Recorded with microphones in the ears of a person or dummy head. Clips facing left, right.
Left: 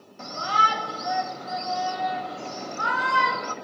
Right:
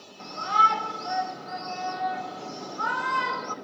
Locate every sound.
0.2 s a shout: 80° left, 1.8 m